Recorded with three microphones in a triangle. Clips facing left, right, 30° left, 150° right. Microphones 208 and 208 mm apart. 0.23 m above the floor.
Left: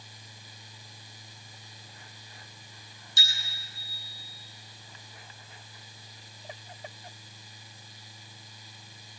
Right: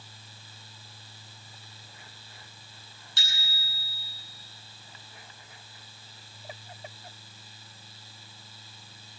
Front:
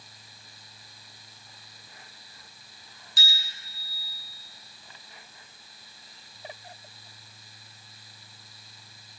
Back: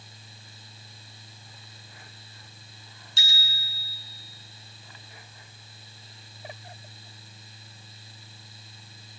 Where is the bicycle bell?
90° right, 5 m.